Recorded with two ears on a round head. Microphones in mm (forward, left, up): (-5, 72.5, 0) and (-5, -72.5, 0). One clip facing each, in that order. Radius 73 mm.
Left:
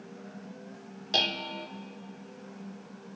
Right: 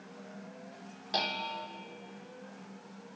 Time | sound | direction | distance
1.1 | dishes clattering | 30° left (ahead or behind) | 0.7 m